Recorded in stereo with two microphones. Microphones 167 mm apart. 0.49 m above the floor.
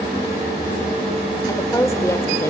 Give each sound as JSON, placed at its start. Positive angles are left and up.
{"t": 1.5, "sound": "a woman speaking", "side_deg": 15, "distance_m": 1.3}